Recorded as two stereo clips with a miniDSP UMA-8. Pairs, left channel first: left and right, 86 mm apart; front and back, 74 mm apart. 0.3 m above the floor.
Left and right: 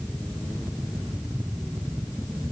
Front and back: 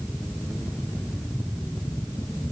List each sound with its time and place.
Only background noise.